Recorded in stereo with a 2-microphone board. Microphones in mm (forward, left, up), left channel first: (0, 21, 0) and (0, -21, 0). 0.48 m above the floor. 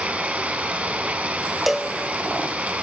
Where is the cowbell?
5° right (ahead or behind), 0.7 m.